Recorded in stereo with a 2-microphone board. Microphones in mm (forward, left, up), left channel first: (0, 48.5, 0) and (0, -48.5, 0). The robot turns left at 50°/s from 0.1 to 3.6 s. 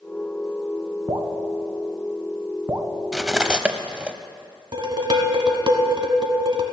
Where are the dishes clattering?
50° right (ahead or behind), 1.0 m.